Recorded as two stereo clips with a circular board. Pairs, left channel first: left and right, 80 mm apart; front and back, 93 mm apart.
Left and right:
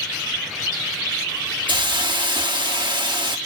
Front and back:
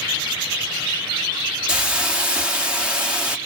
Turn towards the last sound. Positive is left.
turn(degrees=-100)